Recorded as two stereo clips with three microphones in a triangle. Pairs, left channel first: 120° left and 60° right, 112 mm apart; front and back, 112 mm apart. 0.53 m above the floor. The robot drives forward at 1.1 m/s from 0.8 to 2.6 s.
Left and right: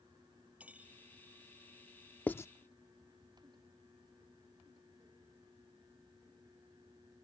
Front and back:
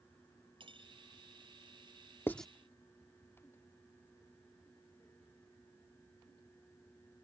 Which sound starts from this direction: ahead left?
Writing, at 2.3 s.